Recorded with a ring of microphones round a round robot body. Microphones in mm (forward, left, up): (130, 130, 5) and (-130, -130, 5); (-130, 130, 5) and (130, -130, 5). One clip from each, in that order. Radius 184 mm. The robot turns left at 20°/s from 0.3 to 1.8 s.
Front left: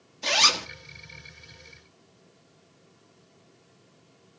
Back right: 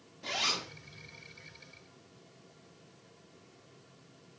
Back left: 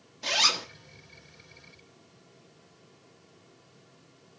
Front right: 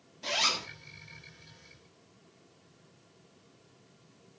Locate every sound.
0.2 s a zipper: 65° left, 1.6 m; by 0.7 s 55° left, 1.6 m